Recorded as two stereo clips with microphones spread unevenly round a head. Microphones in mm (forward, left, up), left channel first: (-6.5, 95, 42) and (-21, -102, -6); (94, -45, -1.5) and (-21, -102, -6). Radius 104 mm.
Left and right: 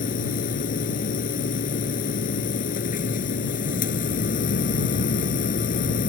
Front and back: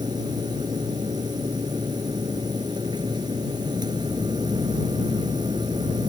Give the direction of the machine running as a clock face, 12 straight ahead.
8 o'clock.